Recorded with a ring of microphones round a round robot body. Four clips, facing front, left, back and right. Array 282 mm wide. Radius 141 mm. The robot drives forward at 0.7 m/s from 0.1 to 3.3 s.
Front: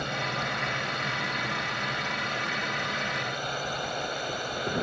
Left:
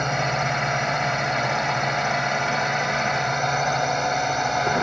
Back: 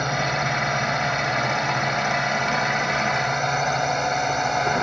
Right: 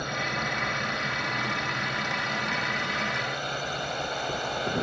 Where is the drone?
130° left; by 4.8 s 135° left.